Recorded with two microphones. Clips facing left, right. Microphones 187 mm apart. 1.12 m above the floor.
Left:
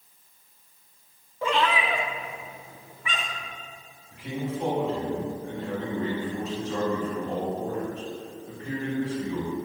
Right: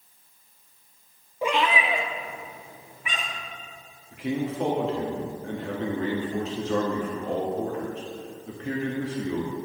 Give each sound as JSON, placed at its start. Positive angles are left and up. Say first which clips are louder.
{"t": 1.4, "sound": "a cat meowing", "louder": "even", "side_deg": -15, "distance_m": 0.6}
{"t": 4.1, "sound": "a man speaking", "louder": "right 4 dB", "side_deg": -85, "distance_m": 1.7}